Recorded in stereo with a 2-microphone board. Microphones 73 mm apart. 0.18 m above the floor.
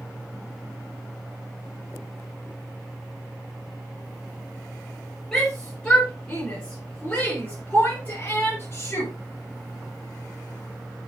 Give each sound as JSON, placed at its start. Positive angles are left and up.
{"t": 5.3, "sound": "a shout", "side_deg": 10, "distance_m": 5.0}